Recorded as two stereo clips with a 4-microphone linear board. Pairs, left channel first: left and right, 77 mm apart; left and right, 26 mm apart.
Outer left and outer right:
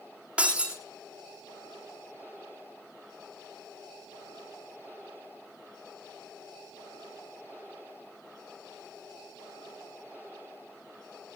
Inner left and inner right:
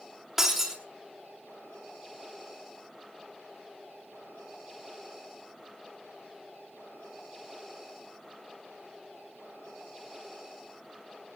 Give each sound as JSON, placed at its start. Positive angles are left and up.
{"t": 0.4, "sound": "breaking glass", "side_deg": -15, "distance_m": 5.5}